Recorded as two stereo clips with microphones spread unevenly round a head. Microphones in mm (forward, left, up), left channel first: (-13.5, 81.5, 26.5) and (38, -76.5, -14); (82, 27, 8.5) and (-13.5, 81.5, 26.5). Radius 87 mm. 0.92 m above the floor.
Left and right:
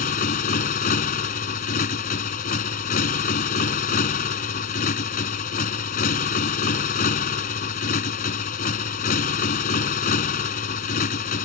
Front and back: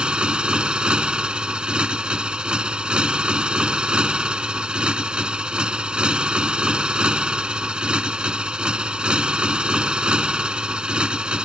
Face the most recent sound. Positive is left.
turn(degrees=70)